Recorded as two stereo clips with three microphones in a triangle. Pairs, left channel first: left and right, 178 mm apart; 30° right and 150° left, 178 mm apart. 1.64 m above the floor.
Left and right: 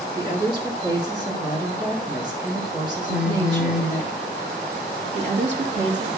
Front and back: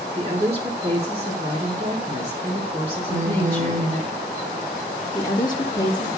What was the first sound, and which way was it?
A woman speaking, 155° right.